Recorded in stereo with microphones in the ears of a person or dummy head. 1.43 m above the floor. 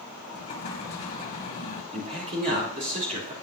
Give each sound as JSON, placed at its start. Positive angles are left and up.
{"t": 0.3, "sound": "an explosion", "side_deg": 45, "distance_m": 1.9}
{"t": 1.9, "sound": "a man speaking", "side_deg": -40, "distance_m": 3.0}